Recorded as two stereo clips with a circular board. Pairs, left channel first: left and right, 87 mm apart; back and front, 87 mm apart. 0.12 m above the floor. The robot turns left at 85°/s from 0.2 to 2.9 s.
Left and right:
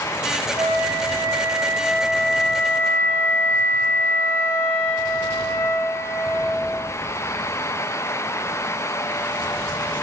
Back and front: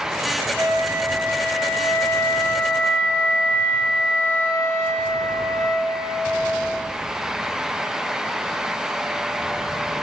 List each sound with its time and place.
0.6 s a flute: 30° right, 0.7 m; by 6.8 s 130° left, 0.7 m